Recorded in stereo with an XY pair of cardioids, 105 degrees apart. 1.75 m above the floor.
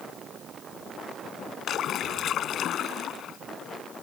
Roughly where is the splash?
Ahead left.